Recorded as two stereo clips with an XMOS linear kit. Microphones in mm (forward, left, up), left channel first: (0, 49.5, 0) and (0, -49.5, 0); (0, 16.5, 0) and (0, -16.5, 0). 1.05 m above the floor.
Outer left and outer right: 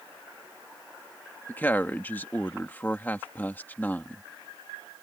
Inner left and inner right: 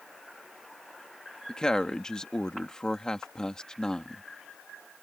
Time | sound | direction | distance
1.5 | a woman speaking | 20° left (ahead or behind) | ?